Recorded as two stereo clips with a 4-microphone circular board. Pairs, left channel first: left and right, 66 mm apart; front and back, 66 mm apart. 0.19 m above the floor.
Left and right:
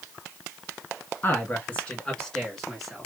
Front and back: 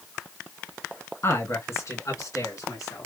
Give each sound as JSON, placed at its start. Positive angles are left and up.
{"t": 1.2, "sound": "a man speaking", "azimuth_deg": 40, "distance_m": 2.0}